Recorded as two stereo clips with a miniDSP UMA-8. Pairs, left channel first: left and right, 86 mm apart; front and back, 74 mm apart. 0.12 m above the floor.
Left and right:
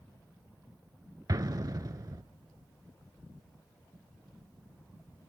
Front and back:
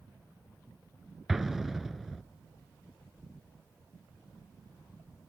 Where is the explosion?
95° right, 0.5 m.